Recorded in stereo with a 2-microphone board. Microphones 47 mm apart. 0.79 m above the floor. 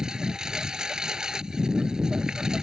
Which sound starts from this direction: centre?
A lawn mower, at 0.0 s.